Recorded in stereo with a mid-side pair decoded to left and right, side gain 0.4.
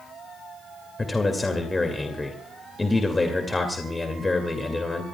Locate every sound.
1.0 s a man speaking: 30° left, 2.5 m